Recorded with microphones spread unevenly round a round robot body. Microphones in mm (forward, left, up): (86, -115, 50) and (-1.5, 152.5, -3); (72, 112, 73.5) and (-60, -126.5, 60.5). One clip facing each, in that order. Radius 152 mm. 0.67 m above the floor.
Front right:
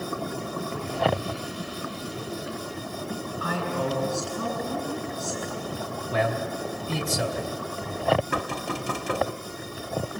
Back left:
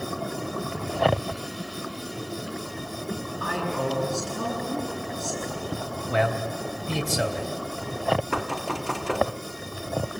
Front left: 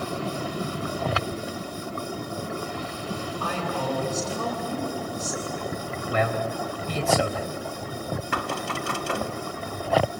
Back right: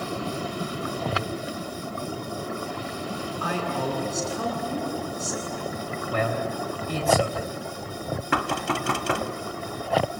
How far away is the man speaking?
About 3 m.